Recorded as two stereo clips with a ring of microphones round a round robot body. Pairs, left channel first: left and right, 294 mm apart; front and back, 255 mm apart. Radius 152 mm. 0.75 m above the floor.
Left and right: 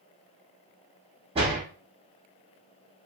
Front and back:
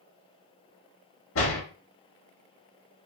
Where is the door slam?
20° right, 0.9 m.